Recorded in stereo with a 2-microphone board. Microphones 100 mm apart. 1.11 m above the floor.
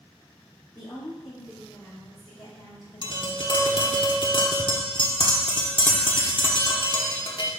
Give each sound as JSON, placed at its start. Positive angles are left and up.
{"t": 0.8, "sound": "a woman speaking", "side_deg": 40, "distance_m": 3.0}
{"t": 3.0, "sound": "tapping", "side_deg": 55, "distance_m": 1.0}